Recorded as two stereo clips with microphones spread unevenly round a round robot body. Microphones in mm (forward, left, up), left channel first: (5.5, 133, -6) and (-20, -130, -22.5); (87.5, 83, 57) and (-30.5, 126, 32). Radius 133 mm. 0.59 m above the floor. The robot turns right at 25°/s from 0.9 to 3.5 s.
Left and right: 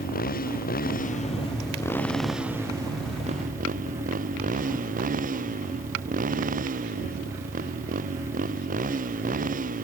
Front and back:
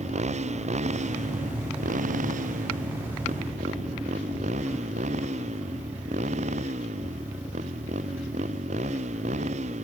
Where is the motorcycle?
140° left; by 9.8 s 155° right.